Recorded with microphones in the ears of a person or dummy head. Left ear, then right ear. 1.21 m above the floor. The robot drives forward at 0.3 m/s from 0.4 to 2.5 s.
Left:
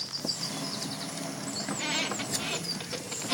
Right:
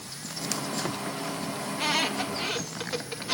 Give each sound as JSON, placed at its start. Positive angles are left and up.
{"t": 1.7, "sound": "a squeak", "side_deg": -20, "distance_m": 0.8}